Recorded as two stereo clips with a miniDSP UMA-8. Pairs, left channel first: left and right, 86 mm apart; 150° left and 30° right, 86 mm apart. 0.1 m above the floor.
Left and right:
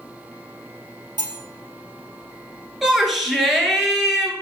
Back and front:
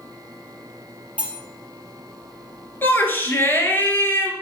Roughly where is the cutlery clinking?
Right.